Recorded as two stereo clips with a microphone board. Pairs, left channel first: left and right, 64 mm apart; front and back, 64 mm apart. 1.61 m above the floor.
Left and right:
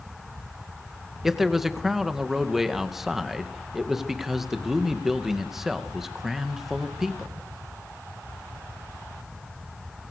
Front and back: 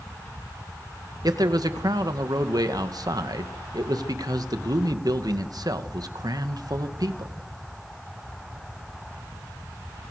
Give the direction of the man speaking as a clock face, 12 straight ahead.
6 o'clock.